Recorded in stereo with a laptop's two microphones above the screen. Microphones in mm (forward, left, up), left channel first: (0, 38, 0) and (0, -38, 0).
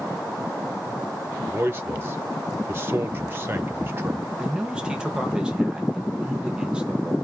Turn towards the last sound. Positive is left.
turn(degrees=-15)  # may be behind; listen again after turning